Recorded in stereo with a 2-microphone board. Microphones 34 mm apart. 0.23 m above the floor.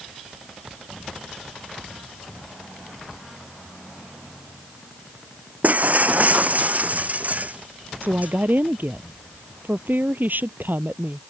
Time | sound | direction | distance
5.6 | breaking glass | 55° right (ahead or behind) | ?
8.0 | a woman speaking | 70° right (ahead or behind) | ?